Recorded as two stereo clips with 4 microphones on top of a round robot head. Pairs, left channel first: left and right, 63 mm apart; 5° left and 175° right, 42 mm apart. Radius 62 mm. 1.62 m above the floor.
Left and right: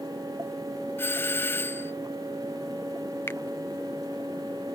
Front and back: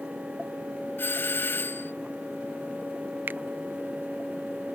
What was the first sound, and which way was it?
A doorbell, 35° left.